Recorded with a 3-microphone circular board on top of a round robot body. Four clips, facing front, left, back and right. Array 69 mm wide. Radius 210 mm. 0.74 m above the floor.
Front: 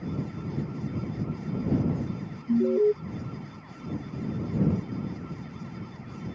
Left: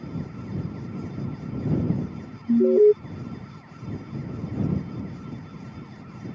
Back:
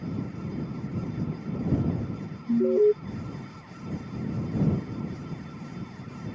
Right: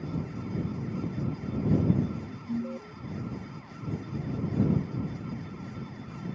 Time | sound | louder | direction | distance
2.5 | an alarm | left 20 dB, back 2 dB | 105° left | ?